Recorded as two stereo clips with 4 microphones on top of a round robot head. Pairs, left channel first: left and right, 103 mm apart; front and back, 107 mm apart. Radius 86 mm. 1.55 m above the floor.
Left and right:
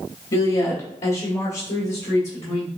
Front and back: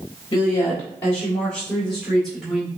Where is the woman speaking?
50° left, 1.4 m; by 2.7 s 95° left, 2.5 m.